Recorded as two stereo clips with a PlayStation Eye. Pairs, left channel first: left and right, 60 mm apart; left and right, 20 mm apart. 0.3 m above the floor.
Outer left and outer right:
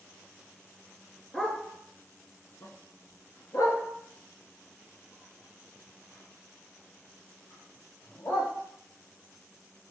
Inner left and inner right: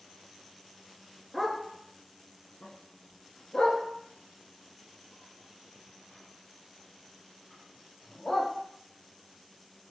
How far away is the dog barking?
About 1.4 m.